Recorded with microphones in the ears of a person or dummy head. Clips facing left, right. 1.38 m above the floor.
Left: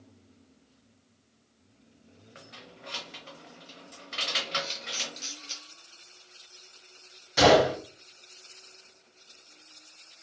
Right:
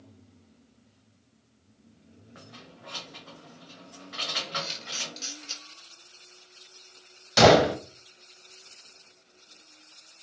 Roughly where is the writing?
No writing in this recording.